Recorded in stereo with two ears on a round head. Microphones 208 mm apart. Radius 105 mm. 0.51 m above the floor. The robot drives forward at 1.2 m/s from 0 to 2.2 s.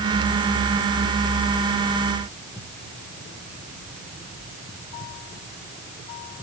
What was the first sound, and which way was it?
Only background noise.